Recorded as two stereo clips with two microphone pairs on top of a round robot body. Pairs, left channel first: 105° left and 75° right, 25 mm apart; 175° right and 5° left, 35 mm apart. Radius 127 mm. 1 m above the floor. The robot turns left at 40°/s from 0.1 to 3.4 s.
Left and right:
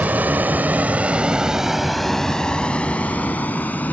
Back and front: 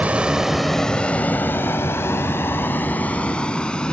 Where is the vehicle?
50° right; by 3.9 s 120° left.